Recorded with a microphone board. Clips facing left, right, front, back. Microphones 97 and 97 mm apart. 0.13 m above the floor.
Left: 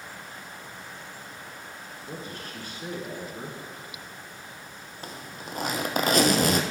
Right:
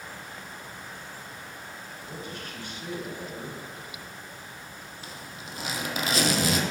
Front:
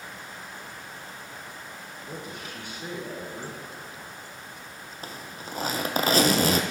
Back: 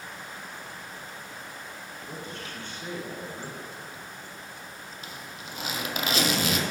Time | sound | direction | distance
2.1 | a man speaking | 75° left | 1.4 m
5.0 | a zipper | 50° left | 0.7 m